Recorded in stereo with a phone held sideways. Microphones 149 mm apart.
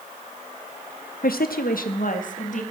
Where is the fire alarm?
No fire alarm in this recording.